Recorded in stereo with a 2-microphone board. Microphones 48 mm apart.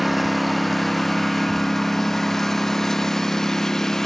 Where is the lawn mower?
Centre (ahead or behind); by 4.1 s 10° left (ahead or behind).